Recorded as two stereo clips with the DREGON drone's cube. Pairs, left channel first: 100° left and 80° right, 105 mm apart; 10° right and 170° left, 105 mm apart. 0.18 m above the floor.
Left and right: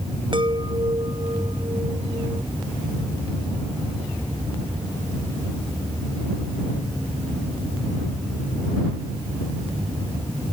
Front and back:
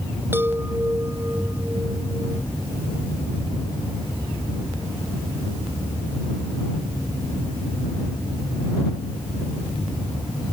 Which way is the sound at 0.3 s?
120° right.